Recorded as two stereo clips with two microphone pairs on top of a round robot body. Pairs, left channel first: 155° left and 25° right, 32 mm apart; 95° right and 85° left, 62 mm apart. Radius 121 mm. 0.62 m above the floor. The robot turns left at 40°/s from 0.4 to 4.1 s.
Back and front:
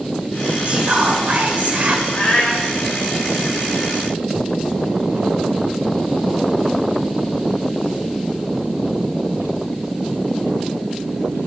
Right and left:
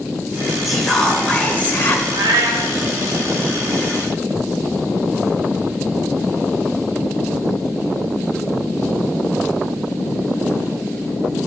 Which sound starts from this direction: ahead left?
Whispering, at 0.7 s.